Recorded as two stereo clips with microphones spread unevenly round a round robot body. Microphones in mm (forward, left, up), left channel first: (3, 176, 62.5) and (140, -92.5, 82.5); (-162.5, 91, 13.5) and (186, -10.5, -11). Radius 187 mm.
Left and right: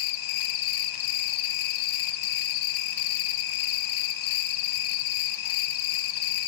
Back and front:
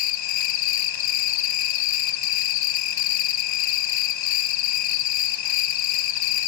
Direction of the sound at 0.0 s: 150° left.